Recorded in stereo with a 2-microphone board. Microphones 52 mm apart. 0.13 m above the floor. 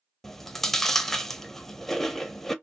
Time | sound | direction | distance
0.2 | chewing | 10° left (ahead or behind) | 0.5 m